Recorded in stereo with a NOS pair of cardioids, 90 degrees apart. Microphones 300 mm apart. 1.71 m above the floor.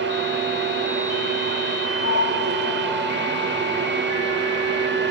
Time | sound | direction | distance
0.0 | a fan | 40° right | 8.5 m
2.0 | a sliding door | 50° left | 6 m